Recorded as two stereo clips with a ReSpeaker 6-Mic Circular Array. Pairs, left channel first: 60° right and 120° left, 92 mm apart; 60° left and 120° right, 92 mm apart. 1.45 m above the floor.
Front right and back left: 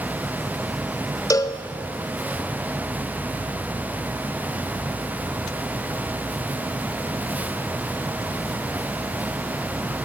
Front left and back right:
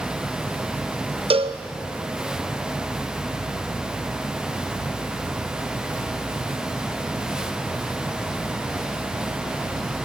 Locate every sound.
1.3 s a cowbell: 115° right, 0.6 m